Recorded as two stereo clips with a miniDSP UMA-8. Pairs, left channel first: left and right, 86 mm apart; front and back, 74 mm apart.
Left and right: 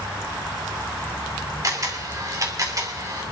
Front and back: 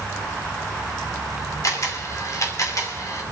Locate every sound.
1.6 s a camera shutter: 40° right, 2.5 m